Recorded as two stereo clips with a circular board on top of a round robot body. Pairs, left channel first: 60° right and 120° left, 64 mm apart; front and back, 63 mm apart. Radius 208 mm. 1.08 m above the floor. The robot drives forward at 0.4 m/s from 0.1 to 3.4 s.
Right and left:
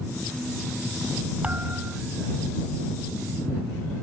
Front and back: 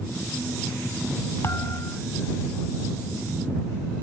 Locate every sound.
1.4 s a thud: 50° left; by 2.0 s 55° left